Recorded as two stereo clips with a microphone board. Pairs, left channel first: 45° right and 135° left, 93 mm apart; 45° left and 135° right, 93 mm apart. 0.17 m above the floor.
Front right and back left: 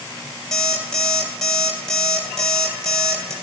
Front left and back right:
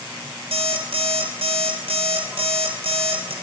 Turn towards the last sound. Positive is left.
turn(degrees=-130)